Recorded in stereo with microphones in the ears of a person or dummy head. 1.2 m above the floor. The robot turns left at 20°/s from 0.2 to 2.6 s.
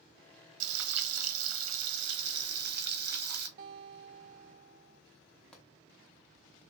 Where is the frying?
85° right, 0.9 m; by 3.5 s 125° right, 0.9 m.